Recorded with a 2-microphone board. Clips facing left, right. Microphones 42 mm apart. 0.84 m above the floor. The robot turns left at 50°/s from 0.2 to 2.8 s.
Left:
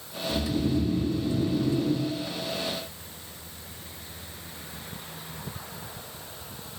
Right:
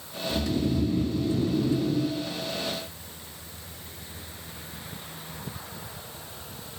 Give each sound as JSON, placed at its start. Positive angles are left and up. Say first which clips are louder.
{"t": 0.3, "sound": "snoring", "louder": "even", "azimuth_deg": 80, "distance_m": 1.3}